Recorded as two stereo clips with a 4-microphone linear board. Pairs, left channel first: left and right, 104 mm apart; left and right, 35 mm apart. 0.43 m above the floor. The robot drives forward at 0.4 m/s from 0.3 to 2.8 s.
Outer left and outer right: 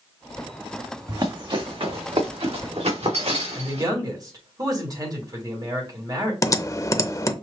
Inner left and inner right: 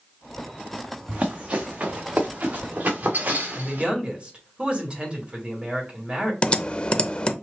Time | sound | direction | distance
1.1 | running footsteps | 40° right (ahead or behind) | 1.7 m
3.5 | a man speaking | 35° right (ahead or behind) | 2 m
6.4 | typing on a keyboard | 30° left (ahead or behind) | 0.5 m